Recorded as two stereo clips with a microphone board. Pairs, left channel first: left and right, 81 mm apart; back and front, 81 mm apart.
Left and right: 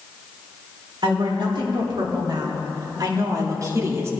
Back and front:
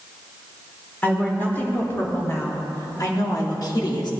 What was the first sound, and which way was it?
A woman speaking, 110° right.